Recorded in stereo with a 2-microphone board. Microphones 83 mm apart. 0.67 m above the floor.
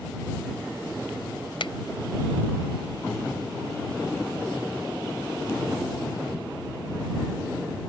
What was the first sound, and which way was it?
A finger snap, 75° left (ahead or behind).